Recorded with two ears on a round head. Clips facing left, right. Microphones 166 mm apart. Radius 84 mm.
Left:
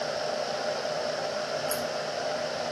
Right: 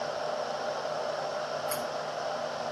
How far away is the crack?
About 7 m.